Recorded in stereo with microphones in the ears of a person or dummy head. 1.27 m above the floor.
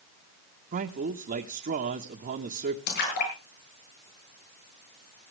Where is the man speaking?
50° right (ahead or behind), 1.2 m.